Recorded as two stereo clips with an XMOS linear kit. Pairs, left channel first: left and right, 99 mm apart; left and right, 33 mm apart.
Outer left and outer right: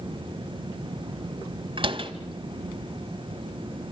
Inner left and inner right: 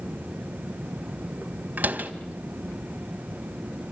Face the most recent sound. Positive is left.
turn(degrees=-60)  # may be behind; listen again after turning